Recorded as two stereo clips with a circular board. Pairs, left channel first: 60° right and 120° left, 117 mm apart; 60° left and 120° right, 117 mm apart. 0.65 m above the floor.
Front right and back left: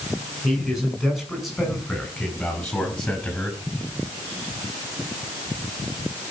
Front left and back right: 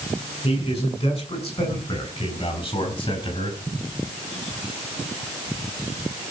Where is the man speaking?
30° left, 8.5 m; by 3.6 s 20° left, 5 m.